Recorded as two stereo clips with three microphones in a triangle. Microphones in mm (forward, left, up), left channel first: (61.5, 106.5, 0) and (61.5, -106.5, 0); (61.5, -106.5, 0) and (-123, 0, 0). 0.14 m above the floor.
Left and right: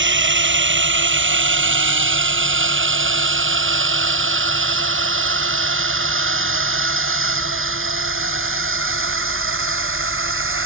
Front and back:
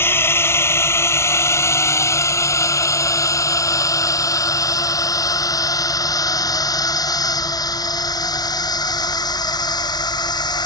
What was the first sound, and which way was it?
A drone, 110° right.